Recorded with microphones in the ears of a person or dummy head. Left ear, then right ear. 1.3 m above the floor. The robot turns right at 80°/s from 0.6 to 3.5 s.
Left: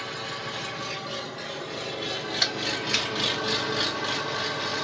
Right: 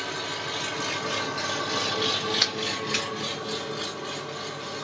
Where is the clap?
20° right (ahead or behind), 1.3 m; by 3.1 s 30° left (ahead or behind), 1.3 m.